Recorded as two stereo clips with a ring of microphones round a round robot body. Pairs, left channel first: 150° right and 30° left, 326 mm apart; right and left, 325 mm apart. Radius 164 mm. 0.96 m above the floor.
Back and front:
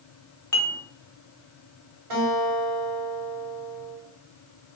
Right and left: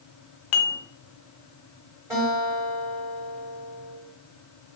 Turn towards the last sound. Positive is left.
turn(degrees=10)